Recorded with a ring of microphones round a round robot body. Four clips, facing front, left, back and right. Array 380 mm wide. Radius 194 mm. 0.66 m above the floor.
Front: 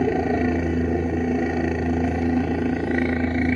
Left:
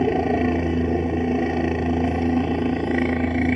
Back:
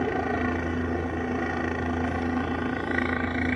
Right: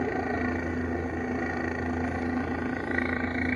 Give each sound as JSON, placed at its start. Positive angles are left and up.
{"t": 0.0, "sound": "a helicopter", "azimuth_deg": 50}